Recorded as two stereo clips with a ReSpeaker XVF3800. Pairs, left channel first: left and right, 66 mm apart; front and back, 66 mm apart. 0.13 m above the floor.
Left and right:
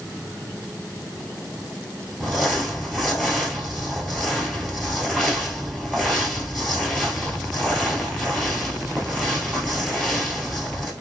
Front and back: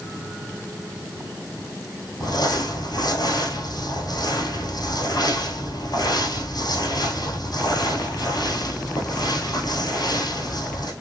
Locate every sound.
2.2 s crumpling: 5° left, 1.2 m